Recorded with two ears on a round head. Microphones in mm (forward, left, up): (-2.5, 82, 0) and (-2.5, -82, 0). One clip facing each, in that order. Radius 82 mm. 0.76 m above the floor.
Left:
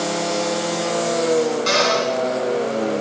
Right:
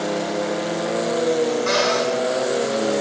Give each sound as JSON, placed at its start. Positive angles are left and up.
{"t": 1.7, "sound": "a cupboard door", "side_deg": 45, "distance_m": 8.5}